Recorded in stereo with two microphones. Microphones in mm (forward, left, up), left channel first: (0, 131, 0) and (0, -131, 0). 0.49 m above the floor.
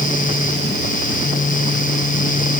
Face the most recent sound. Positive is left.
No sound to turn to.